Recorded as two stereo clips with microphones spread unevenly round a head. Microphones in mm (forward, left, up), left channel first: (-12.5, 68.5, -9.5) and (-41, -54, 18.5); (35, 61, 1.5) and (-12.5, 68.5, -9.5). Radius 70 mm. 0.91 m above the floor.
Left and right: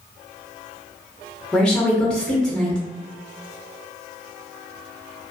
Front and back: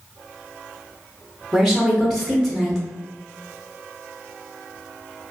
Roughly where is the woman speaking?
Left.